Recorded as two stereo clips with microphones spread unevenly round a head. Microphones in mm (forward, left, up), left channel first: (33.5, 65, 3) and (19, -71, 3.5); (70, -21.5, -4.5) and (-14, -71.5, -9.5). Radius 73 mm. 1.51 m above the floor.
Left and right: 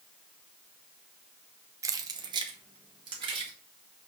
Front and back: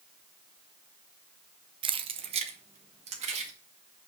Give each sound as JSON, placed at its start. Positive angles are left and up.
{"t": 1.8, "sound": "keys jangling", "azimuth_deg": -160, "distance_m": 0.6}